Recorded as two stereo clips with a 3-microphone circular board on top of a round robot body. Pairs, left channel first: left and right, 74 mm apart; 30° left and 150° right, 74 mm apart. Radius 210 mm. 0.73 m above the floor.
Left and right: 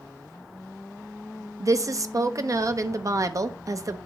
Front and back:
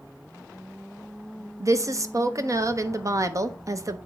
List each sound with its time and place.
1.6 s a woman speaking: 120° right, 1.0 m